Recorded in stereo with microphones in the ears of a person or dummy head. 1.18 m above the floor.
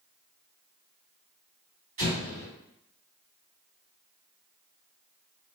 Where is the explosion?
55° right (ahead or behind), 1.6 m.